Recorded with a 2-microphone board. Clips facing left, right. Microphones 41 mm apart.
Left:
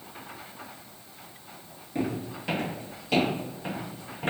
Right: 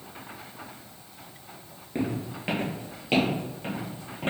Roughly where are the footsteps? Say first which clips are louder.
Even; right.